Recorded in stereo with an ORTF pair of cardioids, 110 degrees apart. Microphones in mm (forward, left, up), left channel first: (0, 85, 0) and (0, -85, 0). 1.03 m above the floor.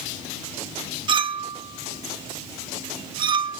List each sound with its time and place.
1.1 s a clink: 30° right, 0.8 m